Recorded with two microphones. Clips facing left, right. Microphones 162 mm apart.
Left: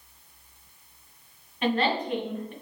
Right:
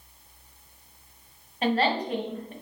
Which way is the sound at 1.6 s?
35° right (ahead or behind).